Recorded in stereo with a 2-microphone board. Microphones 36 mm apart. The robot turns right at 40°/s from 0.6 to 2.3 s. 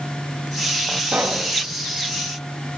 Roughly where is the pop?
Right.